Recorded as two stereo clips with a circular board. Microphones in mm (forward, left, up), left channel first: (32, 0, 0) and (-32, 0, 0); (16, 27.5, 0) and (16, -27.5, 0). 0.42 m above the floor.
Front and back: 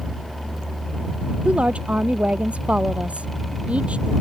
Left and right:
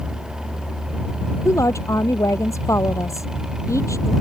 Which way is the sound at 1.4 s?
110° left.